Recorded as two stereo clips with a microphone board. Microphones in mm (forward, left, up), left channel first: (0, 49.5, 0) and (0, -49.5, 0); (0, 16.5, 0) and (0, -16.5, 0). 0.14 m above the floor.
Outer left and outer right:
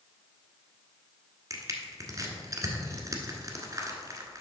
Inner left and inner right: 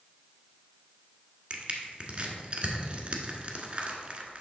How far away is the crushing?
About 1.2 m.